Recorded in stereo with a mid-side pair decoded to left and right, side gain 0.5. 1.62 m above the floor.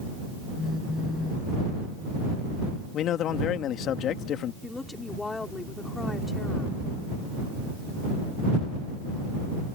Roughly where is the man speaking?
Ahead left.